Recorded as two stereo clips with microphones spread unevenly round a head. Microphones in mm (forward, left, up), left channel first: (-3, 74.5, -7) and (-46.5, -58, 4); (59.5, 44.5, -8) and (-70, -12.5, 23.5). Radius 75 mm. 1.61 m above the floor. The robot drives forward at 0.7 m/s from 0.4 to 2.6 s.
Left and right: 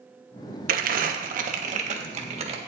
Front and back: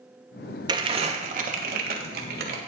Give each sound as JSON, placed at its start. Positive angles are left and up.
{"t": 0.7, "sound": "crumpling", "azimuth_deg": -100, "distance_m": 0.9}